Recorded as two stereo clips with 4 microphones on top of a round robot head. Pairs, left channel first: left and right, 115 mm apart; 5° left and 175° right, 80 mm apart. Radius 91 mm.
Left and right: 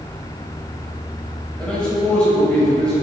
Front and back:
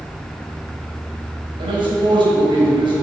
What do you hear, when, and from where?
1.6 s a man speaking: 175° left, 3.5 m